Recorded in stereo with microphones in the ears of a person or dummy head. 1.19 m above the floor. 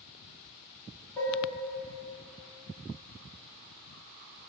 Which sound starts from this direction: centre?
Dishes clattering, at 1.2 s.